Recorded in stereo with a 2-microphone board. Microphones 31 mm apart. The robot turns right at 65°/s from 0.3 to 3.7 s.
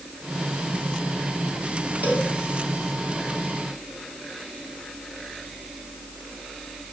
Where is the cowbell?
75° right (ahead or behind), 3 m; by 2.3 s 60° right (ahead or behind), 3 m.